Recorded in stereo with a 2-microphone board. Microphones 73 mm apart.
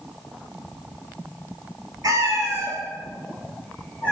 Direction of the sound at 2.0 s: 60° right (ahead or behind).